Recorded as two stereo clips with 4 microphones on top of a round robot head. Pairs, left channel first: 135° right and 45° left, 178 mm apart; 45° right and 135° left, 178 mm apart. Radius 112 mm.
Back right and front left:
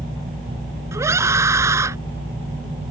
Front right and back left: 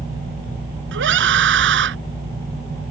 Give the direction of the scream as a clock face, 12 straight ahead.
8 o'clock.